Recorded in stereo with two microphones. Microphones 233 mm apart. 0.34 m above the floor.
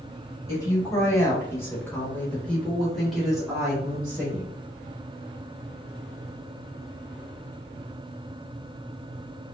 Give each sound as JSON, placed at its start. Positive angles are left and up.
{"t": 0.5, "sound": "a woman speaking", "side_deg": 15, "distance_m": 1.9}